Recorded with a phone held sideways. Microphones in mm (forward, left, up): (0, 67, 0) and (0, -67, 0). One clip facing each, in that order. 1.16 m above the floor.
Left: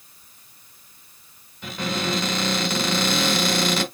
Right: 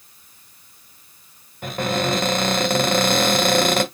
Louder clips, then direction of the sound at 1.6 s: Right 5 dB; 50° right (ahead or behind).